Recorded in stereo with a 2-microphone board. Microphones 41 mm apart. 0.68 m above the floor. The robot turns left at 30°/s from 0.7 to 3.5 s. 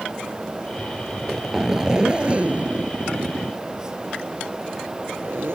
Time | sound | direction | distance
1.1 | a zipper | 10° left | ?